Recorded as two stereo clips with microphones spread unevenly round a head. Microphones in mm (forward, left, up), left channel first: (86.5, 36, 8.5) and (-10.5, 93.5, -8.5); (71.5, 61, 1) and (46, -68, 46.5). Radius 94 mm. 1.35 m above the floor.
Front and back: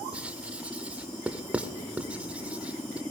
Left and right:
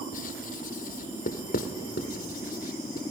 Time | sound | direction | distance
0.1 | writing | 65° left | 1.3 m